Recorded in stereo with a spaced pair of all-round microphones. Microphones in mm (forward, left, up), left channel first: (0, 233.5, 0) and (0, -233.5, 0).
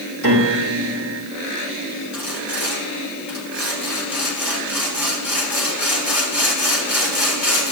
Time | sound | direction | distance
0.2 | a piano | 35° right (ahead or behind) | 6 m
2.1 | sawing | 55° left (ahead or behind) | 3 m